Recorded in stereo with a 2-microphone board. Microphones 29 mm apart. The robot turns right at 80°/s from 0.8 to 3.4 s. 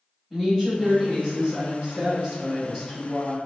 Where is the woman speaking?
160° right, 1.5 m; by 3.4 s 45° left, 1.5 m.